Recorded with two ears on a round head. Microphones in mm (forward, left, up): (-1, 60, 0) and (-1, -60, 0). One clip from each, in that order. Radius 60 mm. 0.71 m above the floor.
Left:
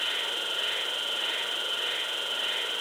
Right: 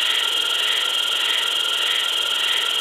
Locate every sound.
0.0 s an insect: 50° right (ahead or behind), 0.8 m